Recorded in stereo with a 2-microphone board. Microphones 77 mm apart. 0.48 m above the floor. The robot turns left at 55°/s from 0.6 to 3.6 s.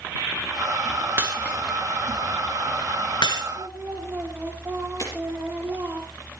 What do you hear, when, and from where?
1.2 s breaking glass: 30° right (ahead or behind), 4.5 m; by 3.5 s 85° left, 4.5 m
3.5 s singing: 20° right (ahead or behind), 6 m
5.0 s breaking glass: 45° left (ahead or behind), 6.5 m